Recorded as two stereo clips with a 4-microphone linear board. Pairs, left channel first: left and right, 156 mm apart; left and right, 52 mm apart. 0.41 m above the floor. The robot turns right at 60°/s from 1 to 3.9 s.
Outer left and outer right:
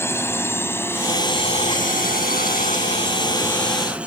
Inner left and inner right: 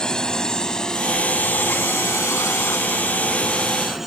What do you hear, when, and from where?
0.0 s a drone: 15° left (ahead or behind); by 4.1 s 5° right (ahead or behind)